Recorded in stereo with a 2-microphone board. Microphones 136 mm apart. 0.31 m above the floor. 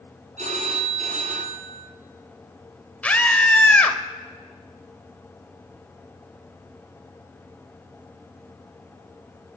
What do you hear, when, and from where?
0.4 s a phone ringing: 65° right (ahead or behind), 2 m
3.0 s a scream: 10° left (ahead or behind), 1.2 m